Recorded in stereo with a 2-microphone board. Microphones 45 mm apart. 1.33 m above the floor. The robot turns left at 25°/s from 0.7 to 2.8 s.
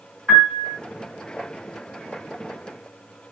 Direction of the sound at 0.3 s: 5° right (ahead or behind).